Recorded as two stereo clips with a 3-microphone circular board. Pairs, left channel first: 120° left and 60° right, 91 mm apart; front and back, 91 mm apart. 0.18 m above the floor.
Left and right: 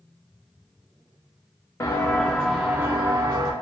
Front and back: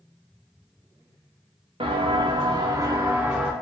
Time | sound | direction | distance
1.8 | footsteps | 175° left | 0.8 m